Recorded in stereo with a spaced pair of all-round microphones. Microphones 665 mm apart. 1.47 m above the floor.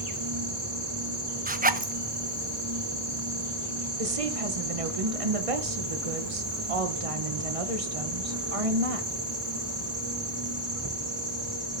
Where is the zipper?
15° right (ahead or behind), 0.7 m.